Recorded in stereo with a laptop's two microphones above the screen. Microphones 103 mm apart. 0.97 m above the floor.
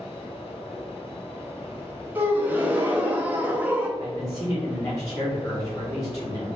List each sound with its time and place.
0.0 s a fan: 65° left (ahead or behind), 1.3 m
2.1 s a gasp: 15° right (ahead or behind), 0.7 m
4.0 s a man speaking: 30° left (ahead or behind), 1.3 m